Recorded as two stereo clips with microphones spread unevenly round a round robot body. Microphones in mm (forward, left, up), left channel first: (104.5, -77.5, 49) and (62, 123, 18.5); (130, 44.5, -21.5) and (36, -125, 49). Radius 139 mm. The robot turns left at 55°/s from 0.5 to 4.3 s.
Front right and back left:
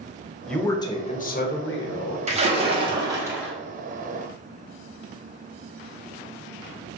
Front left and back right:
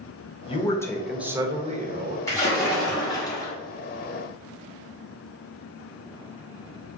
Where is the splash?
95° left, 1.2 m; by 3.5 s 25° left, 1.2 m.